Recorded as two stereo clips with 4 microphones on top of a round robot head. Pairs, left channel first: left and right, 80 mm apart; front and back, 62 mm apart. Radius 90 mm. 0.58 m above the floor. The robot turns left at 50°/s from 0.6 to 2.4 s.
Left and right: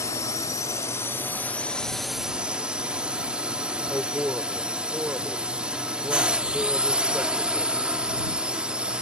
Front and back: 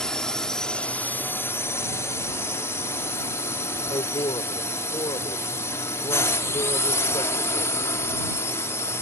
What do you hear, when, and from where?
0.0 s a drone: 75° left; by 9.0 s 15° right
3.9 s a man speaking: 10° right